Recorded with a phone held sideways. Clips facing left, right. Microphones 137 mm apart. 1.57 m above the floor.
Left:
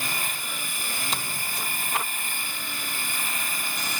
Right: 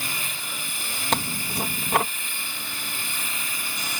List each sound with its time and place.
0.0 s a machine running: 55° left (ahead or behind)
1.1 s tearing paper: 65° right (ahead or behind)